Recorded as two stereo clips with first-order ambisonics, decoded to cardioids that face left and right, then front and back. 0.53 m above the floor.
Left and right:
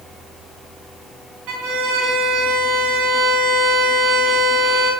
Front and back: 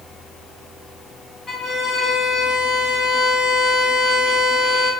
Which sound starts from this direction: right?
A violin, at 1.5 s.